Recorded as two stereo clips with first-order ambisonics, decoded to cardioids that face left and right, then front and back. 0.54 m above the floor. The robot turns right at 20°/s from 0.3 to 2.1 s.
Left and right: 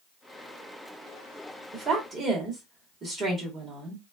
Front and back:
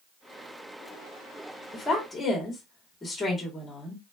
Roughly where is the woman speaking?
Right.